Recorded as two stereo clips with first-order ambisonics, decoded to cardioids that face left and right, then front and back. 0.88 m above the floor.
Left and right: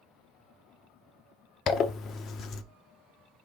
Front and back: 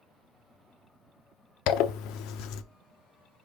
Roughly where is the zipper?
Ahead left.